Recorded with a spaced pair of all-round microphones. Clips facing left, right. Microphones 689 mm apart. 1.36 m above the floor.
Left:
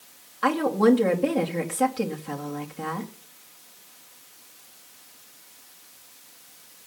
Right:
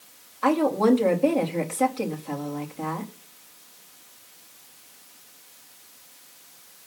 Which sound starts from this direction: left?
A woman speaking, at 0.4 s.